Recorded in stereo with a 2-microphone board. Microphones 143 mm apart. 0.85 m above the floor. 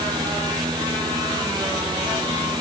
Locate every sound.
Only background noise.